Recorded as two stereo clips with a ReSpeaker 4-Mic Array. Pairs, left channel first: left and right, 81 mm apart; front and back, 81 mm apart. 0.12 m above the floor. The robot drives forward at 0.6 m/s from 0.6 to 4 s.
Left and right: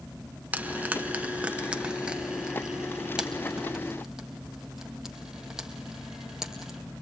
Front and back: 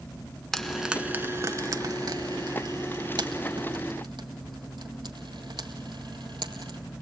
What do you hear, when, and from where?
0.5 s frying: 70° right, 0.6 m; by 6.8 s 175° right, 2 m